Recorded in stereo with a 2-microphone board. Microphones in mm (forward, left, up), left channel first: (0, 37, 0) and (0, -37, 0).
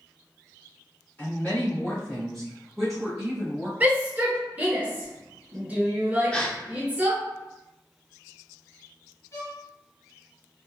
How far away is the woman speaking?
About 1.7 m.